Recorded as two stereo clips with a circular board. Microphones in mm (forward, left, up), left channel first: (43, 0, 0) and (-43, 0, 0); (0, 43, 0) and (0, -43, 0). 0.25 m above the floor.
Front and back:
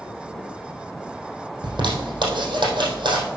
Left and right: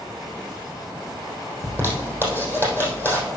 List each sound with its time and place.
1.6 s a zipper: 150° right, 3.5 m